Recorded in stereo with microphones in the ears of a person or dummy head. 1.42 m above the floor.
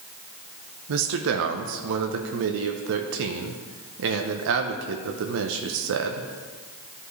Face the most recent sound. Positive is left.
turn(degrees=-70)  # may be behind; listen again after turning